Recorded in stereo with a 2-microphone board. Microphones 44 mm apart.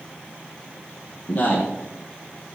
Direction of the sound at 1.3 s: 45° left (ahead or behind).